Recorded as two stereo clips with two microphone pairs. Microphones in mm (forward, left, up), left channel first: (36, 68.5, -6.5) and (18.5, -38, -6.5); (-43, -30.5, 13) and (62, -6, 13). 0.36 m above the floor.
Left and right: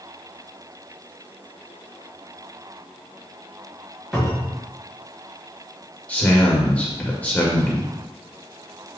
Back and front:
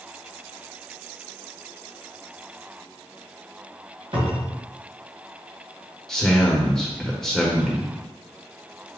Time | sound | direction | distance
4.1 | a cupboard door | 15° right | 1.8 m
6.1 | a man speaking | 115° left | 0.8 m